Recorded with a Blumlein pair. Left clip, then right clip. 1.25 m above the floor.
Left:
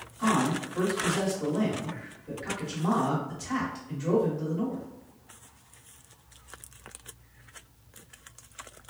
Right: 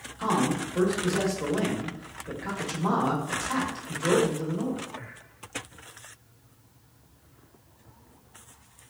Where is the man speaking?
15° right, 1.2 m.